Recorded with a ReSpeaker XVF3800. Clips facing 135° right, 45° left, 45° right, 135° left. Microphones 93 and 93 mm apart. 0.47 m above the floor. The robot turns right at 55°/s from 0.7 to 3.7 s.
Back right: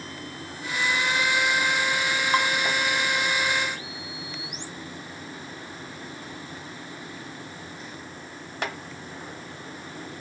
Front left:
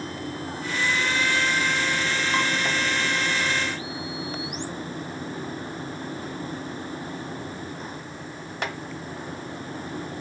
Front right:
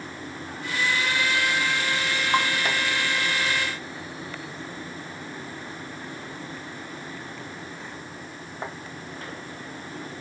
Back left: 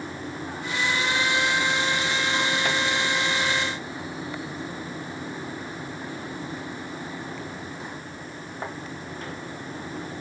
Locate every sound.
2.3 s dishes clattering: 70° right, 2.5 m; by 2.5 s 60° right, 2.5 m